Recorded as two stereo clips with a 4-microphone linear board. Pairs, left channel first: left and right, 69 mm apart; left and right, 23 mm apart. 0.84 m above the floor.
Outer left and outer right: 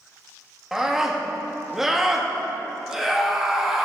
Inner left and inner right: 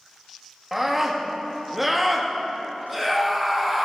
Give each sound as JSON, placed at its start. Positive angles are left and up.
{"t": 0.7, "sound": "a scream", "side_deg": -5, "distance_m": 1.3}